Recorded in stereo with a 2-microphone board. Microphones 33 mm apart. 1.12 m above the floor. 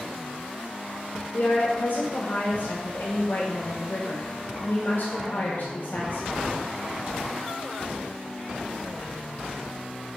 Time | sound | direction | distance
1.3 | a woman speaking | 70° left (ahead or behind) | 1.7 m